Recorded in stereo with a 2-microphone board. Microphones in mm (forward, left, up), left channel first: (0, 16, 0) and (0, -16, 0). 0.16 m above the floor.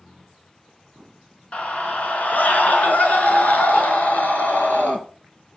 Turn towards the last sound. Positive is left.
turn(degrees=65)  # may be behind; listen again after turning